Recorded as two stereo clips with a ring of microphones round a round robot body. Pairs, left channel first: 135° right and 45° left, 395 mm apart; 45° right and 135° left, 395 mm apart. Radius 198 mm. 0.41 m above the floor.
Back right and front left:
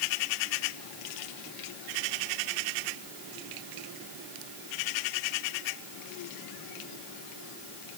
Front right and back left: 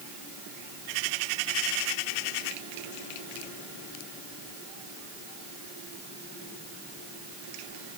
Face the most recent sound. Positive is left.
No sound to turn to.